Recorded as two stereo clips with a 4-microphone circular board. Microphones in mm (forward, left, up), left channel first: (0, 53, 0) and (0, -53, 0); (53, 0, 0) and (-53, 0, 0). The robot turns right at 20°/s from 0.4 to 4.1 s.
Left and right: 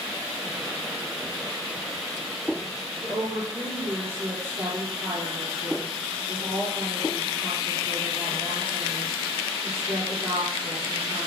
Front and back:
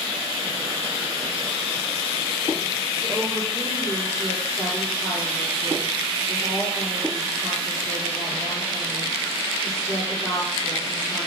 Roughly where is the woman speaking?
Right.